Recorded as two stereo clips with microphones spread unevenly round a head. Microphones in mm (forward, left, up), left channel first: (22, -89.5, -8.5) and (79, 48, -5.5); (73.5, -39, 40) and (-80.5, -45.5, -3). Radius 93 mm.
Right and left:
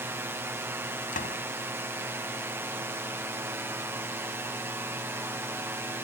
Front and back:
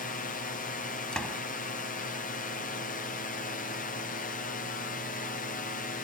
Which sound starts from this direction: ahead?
A drone, at 0.0 s.